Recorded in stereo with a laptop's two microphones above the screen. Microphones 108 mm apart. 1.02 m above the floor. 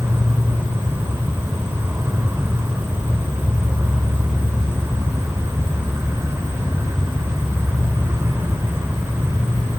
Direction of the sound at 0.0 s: 25° right (ahead or behind).